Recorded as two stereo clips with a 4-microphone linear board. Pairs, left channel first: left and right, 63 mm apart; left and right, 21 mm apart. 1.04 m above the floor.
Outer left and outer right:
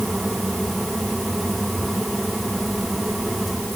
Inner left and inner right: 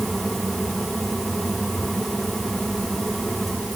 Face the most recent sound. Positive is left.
No sound to turn to.